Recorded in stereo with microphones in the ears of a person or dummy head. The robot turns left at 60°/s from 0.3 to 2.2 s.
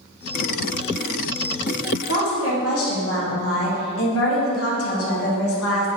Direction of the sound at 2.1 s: 80° left.